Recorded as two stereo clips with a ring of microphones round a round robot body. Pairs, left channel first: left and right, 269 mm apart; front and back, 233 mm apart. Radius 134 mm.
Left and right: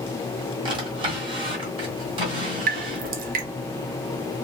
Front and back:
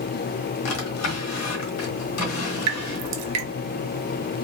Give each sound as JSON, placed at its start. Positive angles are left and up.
{"t": 0.7, "sound": "a drawer", "azimuth_deg": -20, "distance_m": 1.4}
{"t": 2.7, "sound": "dripping", "azimuth_deg": -150, "distance_m": 0.5}